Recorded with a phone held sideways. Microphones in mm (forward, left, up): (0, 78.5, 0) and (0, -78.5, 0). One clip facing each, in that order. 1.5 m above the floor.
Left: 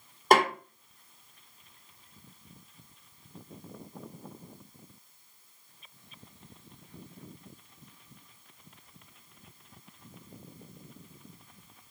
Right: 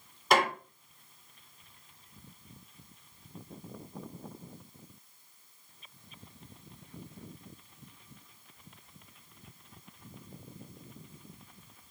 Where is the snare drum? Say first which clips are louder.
Left 4 dB; 50° left (ahead or behind), 2.5 m.